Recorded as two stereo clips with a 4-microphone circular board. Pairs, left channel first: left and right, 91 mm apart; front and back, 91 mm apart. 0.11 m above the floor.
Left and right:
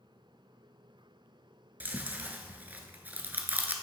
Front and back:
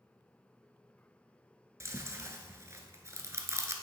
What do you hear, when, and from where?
1.8 s chewing: 150° right, 0.7 m